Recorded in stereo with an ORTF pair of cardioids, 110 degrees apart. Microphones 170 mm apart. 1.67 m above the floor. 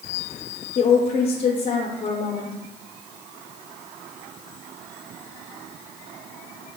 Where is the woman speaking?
35° left, 0.7 m.